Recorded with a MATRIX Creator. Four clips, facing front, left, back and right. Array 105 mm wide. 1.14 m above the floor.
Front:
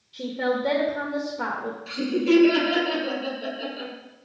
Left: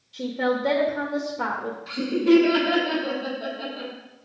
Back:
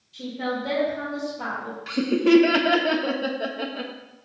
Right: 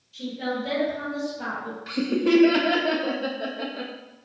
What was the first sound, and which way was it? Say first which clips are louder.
A woman speaking: left 5 dB, front 3 dB; 60° left.